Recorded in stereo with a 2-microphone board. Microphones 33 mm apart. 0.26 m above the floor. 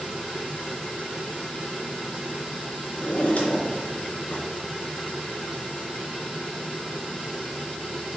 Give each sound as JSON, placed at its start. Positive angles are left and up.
{"t": 3.0, "sound": "a drawer", "side_deg": 50, "distance_m": 2.5}